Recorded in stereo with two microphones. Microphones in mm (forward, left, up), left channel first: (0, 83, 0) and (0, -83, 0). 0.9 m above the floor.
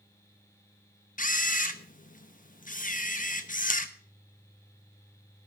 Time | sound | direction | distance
1.2 | a camera shutter | 55° left (ahead or behind) | 1.0 m